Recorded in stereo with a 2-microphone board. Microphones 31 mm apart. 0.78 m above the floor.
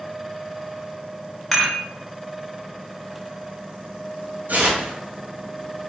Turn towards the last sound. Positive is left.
turn(degrees=-75)  # may be behind; listen again after turning